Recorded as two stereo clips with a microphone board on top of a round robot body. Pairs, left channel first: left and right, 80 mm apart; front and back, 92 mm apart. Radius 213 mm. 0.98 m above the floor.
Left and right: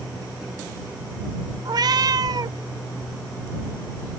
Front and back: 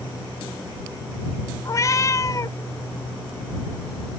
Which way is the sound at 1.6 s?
55° right.